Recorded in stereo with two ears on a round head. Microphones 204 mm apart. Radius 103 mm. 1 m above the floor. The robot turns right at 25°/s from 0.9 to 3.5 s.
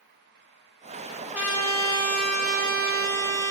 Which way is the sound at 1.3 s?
175° right.